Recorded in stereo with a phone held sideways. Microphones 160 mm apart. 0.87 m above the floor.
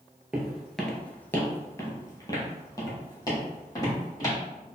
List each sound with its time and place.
0.3 s footsteps: 5° right (ahead or behind), 1.0 m; by 4.4 s 20° left (ahead or behind), 2.5 m